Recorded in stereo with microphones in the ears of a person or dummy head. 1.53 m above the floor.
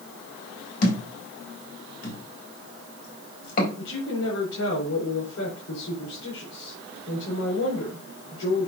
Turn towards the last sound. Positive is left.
turn(degrees=80)